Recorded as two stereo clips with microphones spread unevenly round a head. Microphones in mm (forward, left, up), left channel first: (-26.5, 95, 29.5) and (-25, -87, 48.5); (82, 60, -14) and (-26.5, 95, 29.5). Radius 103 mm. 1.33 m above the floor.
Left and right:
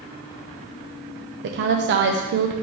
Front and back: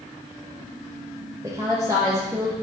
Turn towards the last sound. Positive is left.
turn(degrees=-115)